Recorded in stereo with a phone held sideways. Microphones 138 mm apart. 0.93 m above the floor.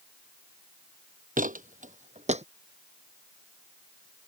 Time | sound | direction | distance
1.4 | footsteps | 65° right (ahead or behind) | ?